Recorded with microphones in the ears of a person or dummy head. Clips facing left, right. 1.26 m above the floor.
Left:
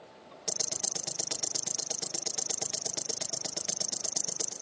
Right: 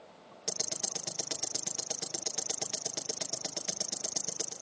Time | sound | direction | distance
0.5 | ticking | centre (ahead or behind) | 1.0 m